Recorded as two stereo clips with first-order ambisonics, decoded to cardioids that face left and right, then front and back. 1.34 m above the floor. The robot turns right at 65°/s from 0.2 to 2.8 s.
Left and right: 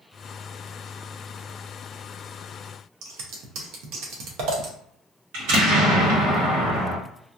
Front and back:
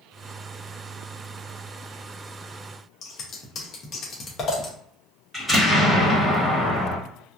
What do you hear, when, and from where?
3.0 s scissors: 60° right, 0.8 m
5.3 s an explosion: 90° right, 1.6 m